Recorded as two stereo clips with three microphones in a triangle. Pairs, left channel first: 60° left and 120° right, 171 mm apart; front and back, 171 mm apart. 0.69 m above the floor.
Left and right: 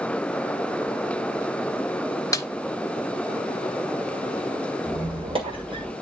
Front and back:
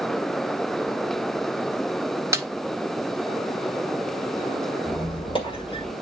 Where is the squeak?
60° right, 1.9 m.